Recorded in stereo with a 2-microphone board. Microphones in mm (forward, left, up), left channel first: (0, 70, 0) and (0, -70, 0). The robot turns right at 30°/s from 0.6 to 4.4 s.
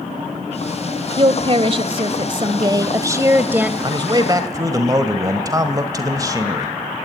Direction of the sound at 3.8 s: 35° right (ahead or behind).